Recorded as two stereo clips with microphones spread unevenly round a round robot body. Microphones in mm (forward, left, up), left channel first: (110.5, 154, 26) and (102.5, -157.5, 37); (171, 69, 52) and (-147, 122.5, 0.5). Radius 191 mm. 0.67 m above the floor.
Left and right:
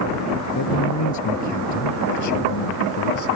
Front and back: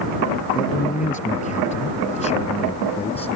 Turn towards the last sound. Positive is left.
turn(degrees=60)